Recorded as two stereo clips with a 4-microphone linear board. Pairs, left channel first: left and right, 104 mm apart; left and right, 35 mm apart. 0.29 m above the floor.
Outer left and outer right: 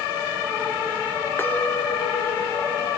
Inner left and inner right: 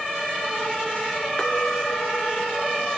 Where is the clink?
20° left (ahead or behind), 3 m.